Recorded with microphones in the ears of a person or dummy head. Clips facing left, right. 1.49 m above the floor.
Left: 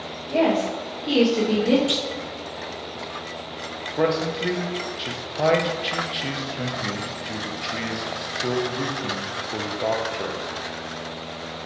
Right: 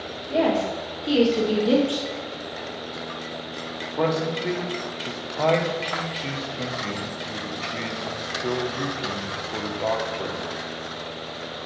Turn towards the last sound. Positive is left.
turn(degrees=10)  # may be behind; listen again after turning